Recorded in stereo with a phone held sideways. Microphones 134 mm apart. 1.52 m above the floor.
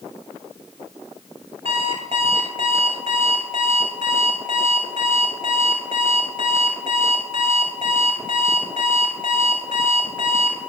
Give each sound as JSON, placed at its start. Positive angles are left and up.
{"t": 1.6, "sound": "an alarm clock", "side_deg": -45, "distance_m": 6.0}